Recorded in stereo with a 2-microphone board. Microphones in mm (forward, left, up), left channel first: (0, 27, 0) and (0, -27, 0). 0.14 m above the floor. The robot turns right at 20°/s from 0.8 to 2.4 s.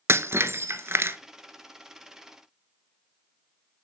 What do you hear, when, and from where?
0.1 s breaking glass: 50° right (ahead or behind), 0.8 m